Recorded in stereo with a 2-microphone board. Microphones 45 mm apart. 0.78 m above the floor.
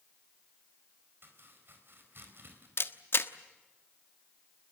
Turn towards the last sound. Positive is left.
turn(degrees=55)  # may be behind; listen again after turning